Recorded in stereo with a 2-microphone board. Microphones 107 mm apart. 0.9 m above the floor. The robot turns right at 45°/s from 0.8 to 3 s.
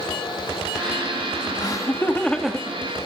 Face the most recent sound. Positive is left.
turn(degrees=-20)  # may be behind; listen again after turning